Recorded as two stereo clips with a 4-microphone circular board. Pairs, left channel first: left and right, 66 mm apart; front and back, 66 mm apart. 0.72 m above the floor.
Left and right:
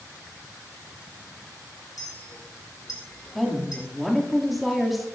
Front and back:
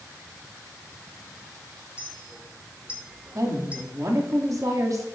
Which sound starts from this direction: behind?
A woman speaking, at 3.4 s.